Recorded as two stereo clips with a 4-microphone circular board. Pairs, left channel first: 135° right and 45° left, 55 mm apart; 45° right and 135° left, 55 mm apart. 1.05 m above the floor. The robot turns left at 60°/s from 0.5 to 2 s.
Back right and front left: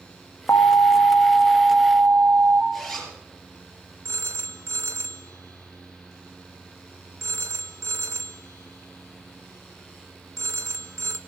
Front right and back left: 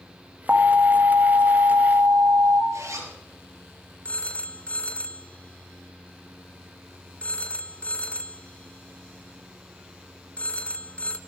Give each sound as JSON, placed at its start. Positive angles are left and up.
{"t": 0.5, "sound": "an alarm", "azimuth_deg": -165, "distance_m": 1.3}
{"t": 2.7, "sound": "a zipper", "azimuth_deg": 135, "distance_m": 4.5}
{"t": 4.0, "sound": "a phone ringing", "azimuth_deg": 20, "distance_m": 0.7}